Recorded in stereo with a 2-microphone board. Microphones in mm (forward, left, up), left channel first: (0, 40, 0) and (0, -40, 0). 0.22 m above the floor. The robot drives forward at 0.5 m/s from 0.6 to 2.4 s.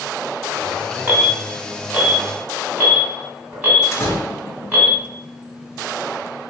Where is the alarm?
25° right (ahead or behind), 1.7 m; by 4.9 s 20° right (ahead or behind), 1.9 m.